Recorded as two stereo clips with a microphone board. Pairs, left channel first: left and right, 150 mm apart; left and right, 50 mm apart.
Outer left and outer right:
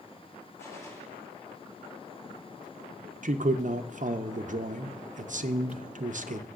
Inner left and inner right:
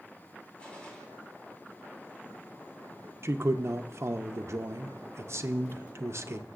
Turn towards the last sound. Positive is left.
turn(degrees=-55)  # may be behind; listen again after turning